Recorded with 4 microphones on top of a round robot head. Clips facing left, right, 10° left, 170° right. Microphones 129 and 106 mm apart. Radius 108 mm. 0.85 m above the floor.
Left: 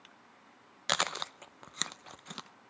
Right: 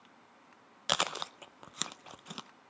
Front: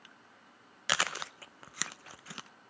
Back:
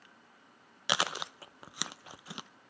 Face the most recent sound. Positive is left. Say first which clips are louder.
# even, back 1 dB
turn(degrees=-155)